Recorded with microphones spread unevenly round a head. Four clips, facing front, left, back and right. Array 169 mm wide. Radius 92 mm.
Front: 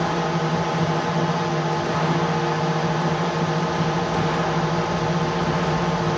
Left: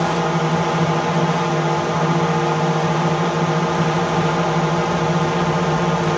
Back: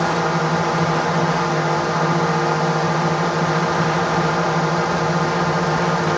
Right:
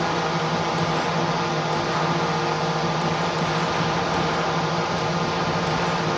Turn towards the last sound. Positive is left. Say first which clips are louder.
# left 4 dB, back 4 dB
turn(degrees=110)